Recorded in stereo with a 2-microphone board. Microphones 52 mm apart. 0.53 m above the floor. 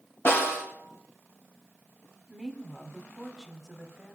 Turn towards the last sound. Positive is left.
turn(degrees=-5)  # may be behind; listen again after turning